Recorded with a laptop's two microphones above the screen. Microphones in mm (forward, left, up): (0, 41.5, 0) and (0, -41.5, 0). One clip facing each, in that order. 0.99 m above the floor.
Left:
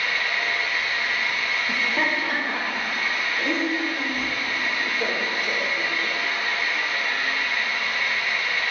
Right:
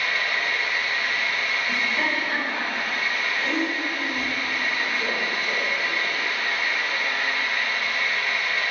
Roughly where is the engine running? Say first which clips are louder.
Even; centre.